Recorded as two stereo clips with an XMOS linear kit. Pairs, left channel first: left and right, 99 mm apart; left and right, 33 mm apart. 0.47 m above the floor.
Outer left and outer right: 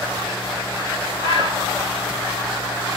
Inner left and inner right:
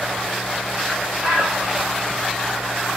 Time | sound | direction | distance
1.2 | a bird | 65° right (ahead or behind) | 1.8 m